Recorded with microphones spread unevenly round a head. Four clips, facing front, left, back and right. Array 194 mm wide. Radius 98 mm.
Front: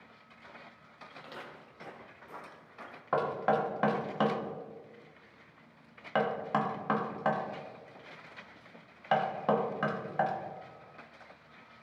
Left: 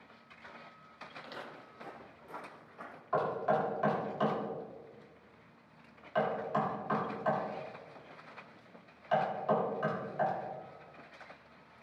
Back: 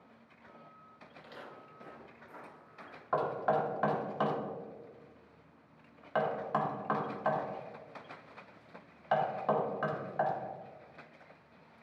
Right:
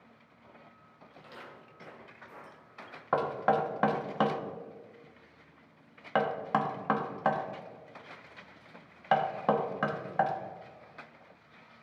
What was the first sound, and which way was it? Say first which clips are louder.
Footsteps: left 2 dB, front 2 dB; 30° left.